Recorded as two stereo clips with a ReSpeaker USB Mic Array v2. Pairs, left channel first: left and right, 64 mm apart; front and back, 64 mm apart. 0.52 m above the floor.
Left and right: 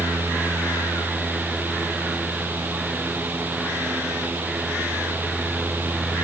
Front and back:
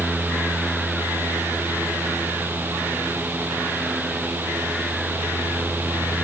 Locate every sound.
Only background noise.